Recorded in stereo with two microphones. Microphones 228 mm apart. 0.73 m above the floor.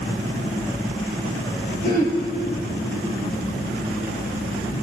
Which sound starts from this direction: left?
Throat clearing, at 1.8 s.